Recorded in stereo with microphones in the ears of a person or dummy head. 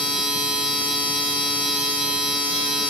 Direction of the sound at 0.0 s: Centre (ahead or behind).